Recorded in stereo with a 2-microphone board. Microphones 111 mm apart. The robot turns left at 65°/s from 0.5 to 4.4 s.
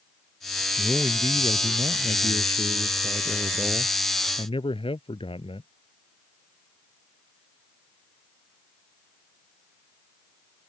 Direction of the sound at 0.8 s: Straight ahead.